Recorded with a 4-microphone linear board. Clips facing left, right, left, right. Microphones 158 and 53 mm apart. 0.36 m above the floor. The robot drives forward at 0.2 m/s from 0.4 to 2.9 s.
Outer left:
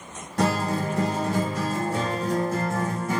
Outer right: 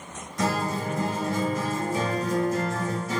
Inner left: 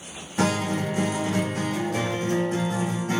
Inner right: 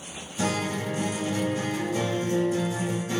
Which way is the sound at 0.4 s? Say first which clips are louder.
Outer left 3 dB, inner left 4 dB; 70° left (ahead or behind).